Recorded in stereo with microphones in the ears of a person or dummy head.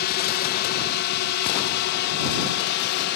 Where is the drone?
50° left (ahead or behind); by 3.2 s 55° left (ahead or behind).